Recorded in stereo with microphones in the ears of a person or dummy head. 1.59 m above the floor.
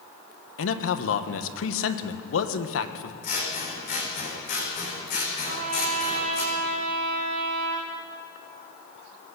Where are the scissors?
50° left (ahead or behind), 4 m.